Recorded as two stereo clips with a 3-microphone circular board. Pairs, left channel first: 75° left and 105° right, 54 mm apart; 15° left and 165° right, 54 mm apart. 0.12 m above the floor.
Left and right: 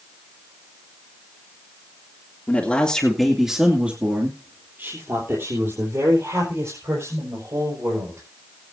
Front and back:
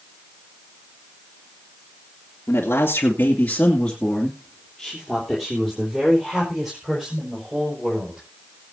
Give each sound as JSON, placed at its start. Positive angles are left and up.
{"t": 2.5, "sound": "a man speaking", "azimuth_deg": 30, "distance_m": 2.5}